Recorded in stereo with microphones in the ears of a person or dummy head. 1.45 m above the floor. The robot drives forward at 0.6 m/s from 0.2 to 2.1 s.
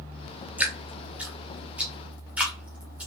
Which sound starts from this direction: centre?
Dripping, at 0.6 s.